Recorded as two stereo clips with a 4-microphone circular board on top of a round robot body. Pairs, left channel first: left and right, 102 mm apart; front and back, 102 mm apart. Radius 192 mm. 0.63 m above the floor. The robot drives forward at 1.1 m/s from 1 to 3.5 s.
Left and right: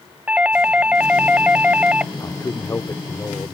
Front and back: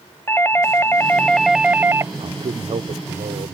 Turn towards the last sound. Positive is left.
turn(degrees=160)